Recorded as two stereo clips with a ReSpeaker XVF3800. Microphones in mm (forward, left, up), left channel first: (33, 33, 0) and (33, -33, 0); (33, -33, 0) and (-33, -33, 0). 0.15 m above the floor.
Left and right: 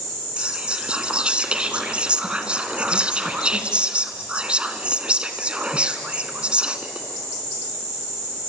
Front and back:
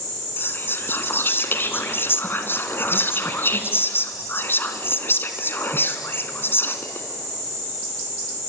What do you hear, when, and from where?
0.4 s whispering: 25° right, 1.8 m